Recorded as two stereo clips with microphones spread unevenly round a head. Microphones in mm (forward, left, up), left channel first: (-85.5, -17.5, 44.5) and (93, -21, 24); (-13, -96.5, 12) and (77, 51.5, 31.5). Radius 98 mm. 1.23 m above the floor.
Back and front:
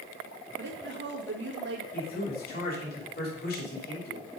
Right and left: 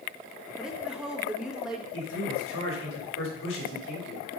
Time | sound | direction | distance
0.6 | a woman speaking | 30° right | 1.6 m
1.9 | a man speaking | 140° right | 3.5 m